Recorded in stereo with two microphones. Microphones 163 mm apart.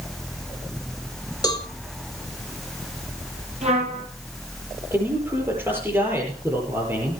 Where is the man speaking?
10° right (ahead or behind), 8 m.